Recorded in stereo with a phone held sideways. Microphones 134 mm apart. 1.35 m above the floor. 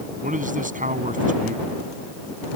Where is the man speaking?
80° right.